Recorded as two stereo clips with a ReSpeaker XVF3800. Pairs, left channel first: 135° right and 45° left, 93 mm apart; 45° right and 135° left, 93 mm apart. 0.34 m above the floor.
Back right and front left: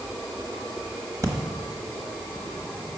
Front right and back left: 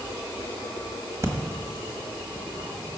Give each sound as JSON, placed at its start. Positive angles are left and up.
{"t": 1.2, "sound": "breathing", "azimuth_deg": 85, "distance_m": 1.2}